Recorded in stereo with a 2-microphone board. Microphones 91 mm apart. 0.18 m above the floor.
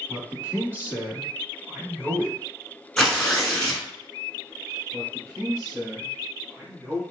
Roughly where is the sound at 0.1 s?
Centre.